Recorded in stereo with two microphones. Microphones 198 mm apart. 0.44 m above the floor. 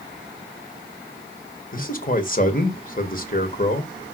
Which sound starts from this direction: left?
A man speaking, at 1.7 s.